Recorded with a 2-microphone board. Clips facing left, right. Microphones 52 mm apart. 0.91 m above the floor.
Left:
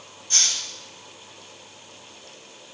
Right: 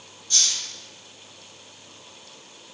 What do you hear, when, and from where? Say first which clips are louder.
0.3 s a hiss: left 1 dB; 35° left (ahead or behind), 1.9 m